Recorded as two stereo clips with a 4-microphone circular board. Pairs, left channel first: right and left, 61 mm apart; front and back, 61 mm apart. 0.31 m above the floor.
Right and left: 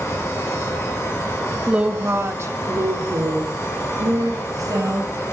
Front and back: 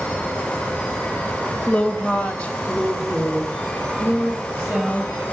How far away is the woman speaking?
About 0.9 m.